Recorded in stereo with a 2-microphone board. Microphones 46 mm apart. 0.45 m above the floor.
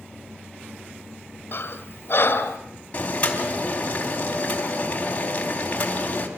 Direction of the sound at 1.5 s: 55° left (ahead or behind).